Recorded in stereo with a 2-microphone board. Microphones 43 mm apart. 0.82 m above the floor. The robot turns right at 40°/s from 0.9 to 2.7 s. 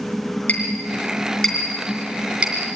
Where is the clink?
35° left (ahead or behind), 4.5 m; by 2.8 s 40° right (ahead or behind), 4.5 m.